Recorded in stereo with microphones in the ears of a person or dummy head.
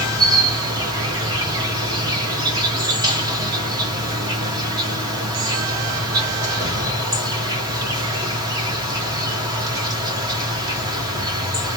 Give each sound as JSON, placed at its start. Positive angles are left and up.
{"t": 0.0, "sound": "an insect", "side_deg": -25, "distance_m": 1.2}